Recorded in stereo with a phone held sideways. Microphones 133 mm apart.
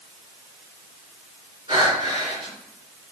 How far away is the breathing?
About 3.5 m.